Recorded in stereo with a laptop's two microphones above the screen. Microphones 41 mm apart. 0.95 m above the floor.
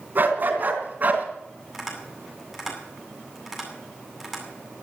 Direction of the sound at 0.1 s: 50° right (ahead or behind).